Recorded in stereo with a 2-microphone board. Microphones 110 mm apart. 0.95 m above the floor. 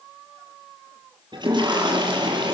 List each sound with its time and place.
1.3 s a toilet flushing: 40° right (ahead or behind), 8.5 m